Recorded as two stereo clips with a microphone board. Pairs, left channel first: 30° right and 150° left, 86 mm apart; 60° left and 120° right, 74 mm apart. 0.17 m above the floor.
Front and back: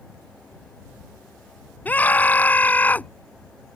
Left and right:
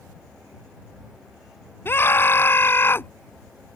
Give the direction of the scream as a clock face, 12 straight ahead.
11 o'clock.